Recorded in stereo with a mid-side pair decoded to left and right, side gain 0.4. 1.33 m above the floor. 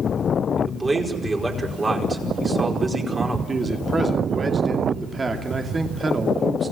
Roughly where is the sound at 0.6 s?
Ahead right.